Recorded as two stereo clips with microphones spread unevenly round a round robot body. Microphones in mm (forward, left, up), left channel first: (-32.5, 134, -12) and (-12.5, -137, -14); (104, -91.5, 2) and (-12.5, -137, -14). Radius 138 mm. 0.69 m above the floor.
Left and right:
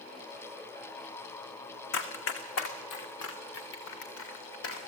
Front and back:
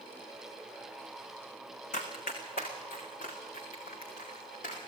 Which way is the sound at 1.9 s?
50° left.